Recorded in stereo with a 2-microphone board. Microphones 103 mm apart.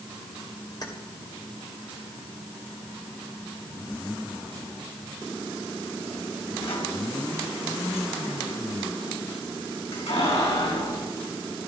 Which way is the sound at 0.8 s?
45° left (ahead or behind).